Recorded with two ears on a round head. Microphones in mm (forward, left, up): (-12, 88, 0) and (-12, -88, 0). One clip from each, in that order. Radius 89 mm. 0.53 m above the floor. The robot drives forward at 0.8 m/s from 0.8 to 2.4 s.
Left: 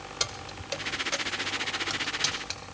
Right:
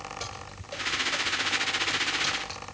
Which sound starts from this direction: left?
Keys jangling, at 0.2 s.